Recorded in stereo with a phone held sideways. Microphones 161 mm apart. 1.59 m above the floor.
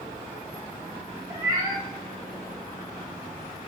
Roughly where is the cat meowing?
Right.